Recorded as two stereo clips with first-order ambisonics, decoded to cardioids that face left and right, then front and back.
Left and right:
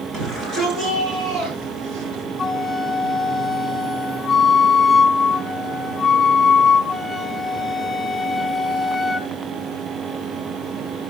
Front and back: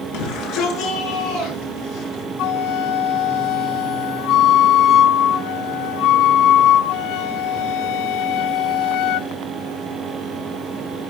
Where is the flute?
15° left, 0.9 m.